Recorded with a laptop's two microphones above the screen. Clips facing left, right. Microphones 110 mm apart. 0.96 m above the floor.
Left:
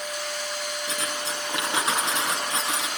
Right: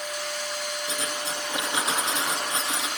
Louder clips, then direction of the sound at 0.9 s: Even; 80° left.